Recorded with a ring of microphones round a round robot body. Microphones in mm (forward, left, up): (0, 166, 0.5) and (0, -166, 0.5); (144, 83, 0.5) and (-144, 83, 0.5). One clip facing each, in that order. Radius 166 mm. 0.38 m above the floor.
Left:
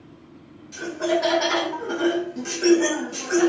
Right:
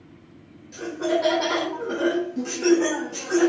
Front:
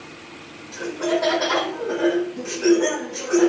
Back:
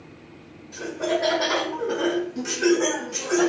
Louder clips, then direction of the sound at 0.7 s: Even, front 3 dB; 20° left.